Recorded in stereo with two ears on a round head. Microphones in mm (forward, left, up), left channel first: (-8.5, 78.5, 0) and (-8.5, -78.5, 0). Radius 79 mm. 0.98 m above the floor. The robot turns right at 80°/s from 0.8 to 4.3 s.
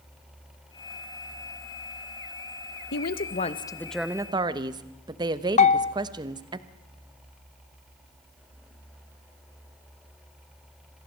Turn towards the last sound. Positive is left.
turn(degrees=35)  # may be behind; listen again after turning